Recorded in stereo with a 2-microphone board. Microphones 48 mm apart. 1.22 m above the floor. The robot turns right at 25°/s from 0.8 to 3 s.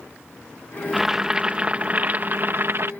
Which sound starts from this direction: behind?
Boiling, at 0.9 s.